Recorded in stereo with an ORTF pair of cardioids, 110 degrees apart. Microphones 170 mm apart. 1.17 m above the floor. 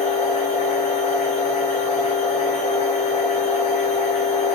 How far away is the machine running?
About 1.3 m.